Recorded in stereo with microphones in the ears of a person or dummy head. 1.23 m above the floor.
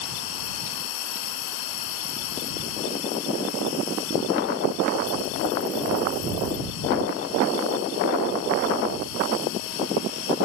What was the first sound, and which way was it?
An insect, 80° left.